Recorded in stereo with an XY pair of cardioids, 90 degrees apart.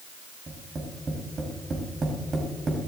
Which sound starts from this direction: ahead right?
Tapping, at 0.5 s.